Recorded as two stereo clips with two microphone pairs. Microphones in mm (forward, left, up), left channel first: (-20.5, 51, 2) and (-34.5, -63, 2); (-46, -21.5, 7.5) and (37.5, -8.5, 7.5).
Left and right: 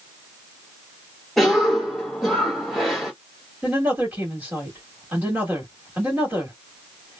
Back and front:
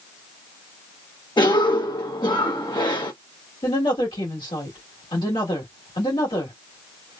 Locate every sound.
1.4 s a cough: 170° left, 1.3 m
3.6 s a woman speaking: 175° right, 2 m